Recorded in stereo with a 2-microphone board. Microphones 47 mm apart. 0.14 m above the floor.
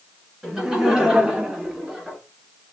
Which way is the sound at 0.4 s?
10° right (ahead or behind).